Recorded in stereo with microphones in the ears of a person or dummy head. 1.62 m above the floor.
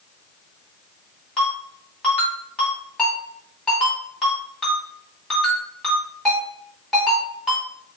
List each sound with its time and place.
1.4 s a ringtone: centre (ahead or behind), 2 m